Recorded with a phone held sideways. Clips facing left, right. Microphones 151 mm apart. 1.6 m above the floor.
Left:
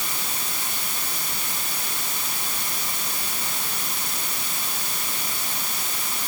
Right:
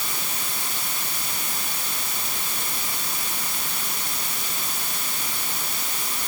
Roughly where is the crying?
I don't hear crying.